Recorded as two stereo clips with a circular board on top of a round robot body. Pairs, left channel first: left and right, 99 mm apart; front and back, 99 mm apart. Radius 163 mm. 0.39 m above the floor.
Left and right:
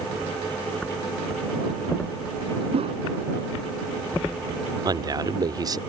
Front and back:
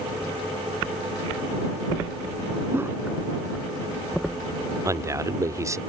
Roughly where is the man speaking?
Behind right.